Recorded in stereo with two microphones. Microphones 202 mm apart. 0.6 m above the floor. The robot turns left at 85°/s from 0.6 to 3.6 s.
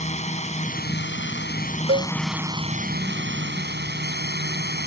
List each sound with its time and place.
0.0 s a drone: 140° left; by 4.9 s 115° right
1.9 s a cowbell: 75° right (ahead or behind); by 2.1 s 85° right